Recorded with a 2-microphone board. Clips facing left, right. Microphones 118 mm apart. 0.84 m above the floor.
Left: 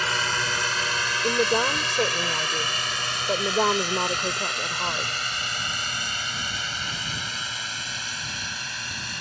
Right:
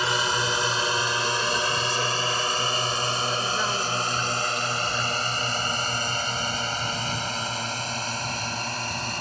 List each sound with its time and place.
0.0 s a drone: 20° right (ahead or behind); by 9.2 s 45° right (ahead or behind)
1.2 s a woman speaking: 60° left (ahead or behind)